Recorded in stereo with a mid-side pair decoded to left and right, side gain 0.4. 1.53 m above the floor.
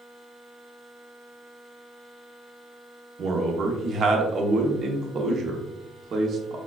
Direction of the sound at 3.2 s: 55° right.